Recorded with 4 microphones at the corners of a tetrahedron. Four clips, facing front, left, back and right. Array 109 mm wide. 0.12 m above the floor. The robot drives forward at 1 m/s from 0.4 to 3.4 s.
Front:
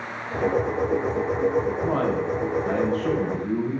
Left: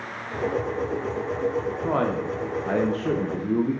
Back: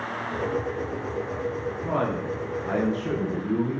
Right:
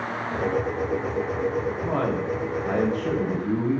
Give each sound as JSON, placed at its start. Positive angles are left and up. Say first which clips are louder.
{"t": 1.8, "sound": "a man speaking", "louder": "left 3 dB, front 3 dB", "azimuth_deg": 75, "distance_m": 5.5}